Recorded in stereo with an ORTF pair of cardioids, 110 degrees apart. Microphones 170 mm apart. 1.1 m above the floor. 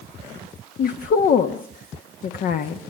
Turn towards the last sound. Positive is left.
turn(degrees=55)